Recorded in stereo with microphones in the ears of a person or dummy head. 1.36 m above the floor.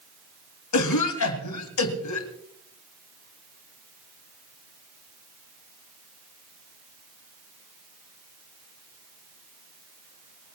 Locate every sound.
0.7 s a cough: 80° left, 3 m